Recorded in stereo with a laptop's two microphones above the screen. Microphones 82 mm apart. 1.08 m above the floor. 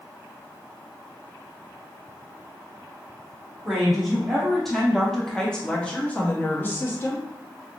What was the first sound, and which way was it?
A woman speaking, centre (ahead or behind).